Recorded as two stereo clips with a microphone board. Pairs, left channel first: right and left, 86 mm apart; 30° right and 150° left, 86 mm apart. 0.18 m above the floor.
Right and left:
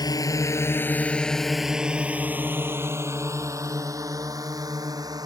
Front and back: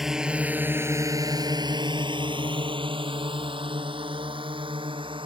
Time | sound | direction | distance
0.0 | a drone | 125° right | ?